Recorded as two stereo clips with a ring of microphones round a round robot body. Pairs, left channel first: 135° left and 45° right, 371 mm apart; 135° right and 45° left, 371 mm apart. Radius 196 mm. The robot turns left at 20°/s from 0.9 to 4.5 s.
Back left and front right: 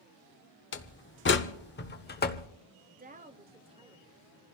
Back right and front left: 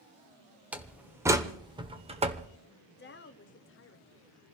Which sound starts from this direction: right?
A woman speaking, at 2.9 s.